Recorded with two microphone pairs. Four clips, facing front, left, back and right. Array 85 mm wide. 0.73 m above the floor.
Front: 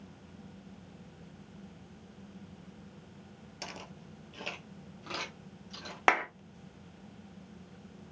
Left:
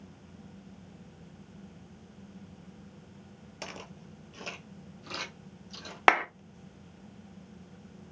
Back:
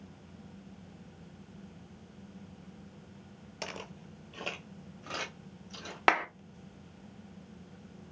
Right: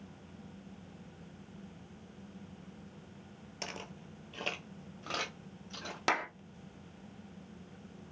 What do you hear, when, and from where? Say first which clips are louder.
3.6 s footsteps: left 1 dB, back 3 dB; 170° left, 0.7 m; by 6.0 s 85° right, 1.8 m
6.1 s a clap: left 9 dB, even; 95° left, 0.5 m